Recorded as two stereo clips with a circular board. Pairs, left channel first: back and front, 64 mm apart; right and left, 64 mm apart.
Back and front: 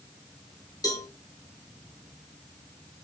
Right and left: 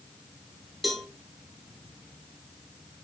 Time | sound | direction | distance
0.8 | a cowbell | straight behind | 2.5 m